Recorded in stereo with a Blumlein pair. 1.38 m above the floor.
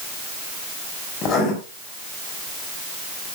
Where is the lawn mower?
I don't hear a lawn mower.